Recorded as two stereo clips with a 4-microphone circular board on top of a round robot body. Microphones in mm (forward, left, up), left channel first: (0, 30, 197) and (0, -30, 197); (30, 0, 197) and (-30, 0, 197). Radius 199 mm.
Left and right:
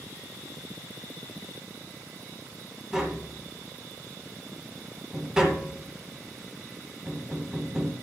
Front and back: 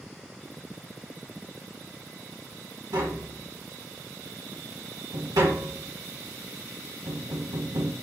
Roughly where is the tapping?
Behind.